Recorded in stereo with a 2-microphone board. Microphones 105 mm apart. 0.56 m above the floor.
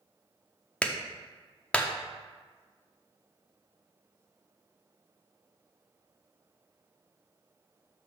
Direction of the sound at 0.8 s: 10° left (ahead or behind).